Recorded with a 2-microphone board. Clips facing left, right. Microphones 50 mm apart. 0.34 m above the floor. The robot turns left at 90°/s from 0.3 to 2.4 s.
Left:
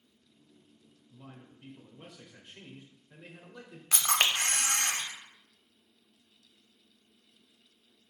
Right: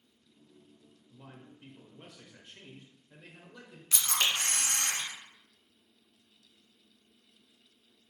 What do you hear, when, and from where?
1.1 s a man speaking: 20° right (ahead or behind), 0.9 m; by 3.8 s 10° left (ahead or behind), 0.9 m
3.9 s a camera shutter: 55° left (ahead or behind), 0.5 m